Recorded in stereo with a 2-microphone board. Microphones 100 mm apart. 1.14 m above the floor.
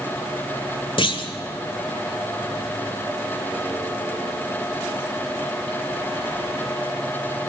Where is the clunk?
60° left (ahead or behind), 1.8 m.